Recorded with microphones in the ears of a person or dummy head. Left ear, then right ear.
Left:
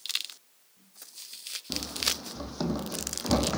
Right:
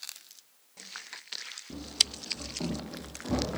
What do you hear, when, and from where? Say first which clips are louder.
1.7 s running footsteps: right 2 dB; 50° left (ahead or behind), 3 m; by 3.6 s 45° left (ahead or behind), 4 m